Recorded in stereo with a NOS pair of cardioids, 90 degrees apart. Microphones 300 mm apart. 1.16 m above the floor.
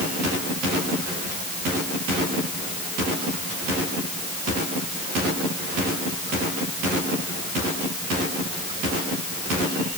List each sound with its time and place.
Only background noise.